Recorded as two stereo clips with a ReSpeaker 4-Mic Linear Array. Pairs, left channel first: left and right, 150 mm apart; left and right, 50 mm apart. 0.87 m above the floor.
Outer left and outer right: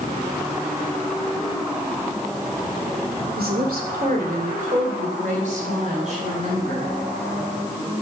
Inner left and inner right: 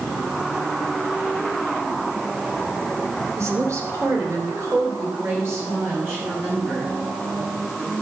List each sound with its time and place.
3.4 s a woman speaking: 80° right, 2 m; by 6.9 s 45° right (ahead or behind), 6.5 m